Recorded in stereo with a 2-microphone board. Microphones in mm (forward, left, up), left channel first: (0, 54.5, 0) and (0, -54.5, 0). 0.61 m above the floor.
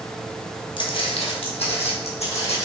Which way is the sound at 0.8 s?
50° left (ahead or behind).